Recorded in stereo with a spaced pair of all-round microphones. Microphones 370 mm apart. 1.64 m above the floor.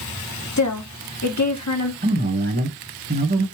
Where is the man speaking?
25° right (ahead or behind), 1.8 m.